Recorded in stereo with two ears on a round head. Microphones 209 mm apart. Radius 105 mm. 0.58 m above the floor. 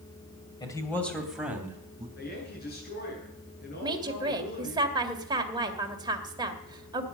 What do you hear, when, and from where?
0.6 s a man speaking: 15° left (ahead or behind), 2.5 m; by 2.1 s 15° right (ahead or behind), 3.5 m
2.2 s a woman speaking: 45° left (ahead or behind), 7.5 m
3.8 s a woman speaking: 20° right (ahead or behind), 2.0 m